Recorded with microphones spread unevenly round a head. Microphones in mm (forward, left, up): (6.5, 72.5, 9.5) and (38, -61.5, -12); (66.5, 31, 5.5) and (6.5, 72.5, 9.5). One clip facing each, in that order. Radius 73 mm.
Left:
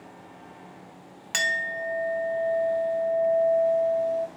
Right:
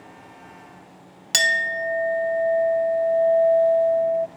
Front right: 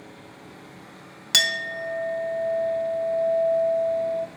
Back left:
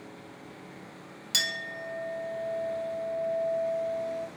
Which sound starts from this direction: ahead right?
A clink, at 1.3 s.